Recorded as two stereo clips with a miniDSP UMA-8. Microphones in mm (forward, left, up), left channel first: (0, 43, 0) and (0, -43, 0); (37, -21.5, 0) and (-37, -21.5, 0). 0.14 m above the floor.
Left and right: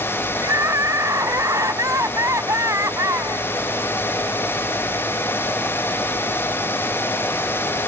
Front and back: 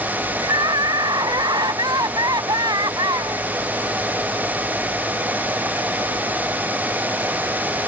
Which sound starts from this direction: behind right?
Crying, at 0.4 s.